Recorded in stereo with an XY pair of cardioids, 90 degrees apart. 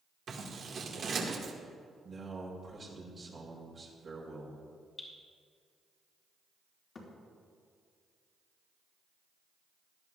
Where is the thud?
50° left, 3.5 m.